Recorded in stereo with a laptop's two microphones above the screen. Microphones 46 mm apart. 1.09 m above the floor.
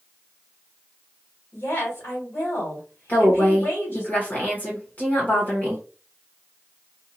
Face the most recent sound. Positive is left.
turn(degrees=40)  # may be behind; listen again after turning